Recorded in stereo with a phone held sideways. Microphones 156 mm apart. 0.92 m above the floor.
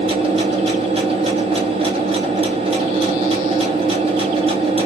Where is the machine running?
40° right (ahead or behind), 0.8 m.